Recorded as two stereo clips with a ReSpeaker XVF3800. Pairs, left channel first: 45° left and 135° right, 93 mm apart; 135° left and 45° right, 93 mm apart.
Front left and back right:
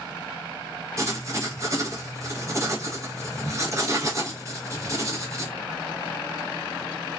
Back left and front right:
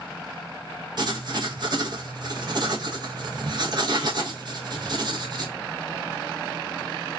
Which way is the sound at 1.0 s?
80° right.